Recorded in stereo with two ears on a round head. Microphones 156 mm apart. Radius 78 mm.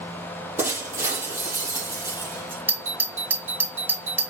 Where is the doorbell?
10° right (ahead or behind), 1.9 m.